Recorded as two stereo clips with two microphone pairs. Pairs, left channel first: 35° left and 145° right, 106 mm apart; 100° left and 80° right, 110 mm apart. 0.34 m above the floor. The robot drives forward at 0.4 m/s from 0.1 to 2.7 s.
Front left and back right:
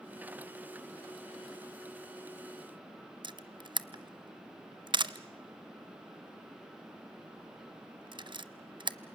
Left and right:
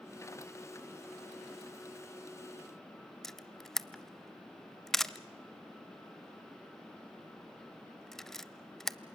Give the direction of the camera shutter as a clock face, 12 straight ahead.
6 o'clock.